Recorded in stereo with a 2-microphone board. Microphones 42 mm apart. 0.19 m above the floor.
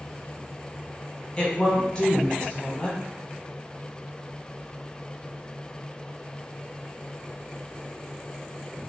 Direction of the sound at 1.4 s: 25° left (ahead or behind).